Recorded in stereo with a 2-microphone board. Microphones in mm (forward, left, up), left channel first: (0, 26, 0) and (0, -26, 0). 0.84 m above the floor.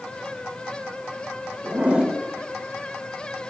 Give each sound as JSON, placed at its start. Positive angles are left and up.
{"t": 1.6, "sound": "a zipper", "side_deg": -25, "distance_m": 5.0}